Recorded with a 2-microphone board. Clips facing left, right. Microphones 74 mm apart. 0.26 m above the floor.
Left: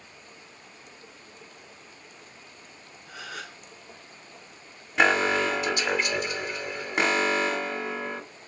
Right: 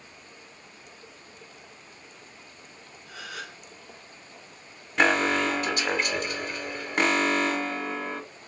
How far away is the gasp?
About 1.2 m.